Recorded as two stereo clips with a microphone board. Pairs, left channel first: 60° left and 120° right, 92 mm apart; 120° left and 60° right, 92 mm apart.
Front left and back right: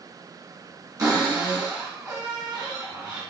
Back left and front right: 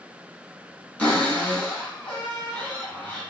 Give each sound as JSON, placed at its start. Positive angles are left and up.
{"t": 1.0, "sound": "a cupboard door", "azimuth_deg": -170, "distance_m": 1.9}